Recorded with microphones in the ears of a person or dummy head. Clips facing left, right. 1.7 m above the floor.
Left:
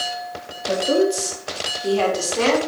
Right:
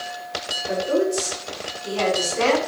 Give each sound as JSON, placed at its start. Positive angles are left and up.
{"t": 0.7, "sound": "a woman speaking", "side_deg": 50, "distance_m": 2.5}